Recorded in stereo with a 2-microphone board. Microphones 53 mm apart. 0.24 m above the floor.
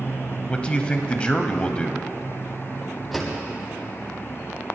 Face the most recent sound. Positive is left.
turn(degrees=0)  # may be behind; listen again after turning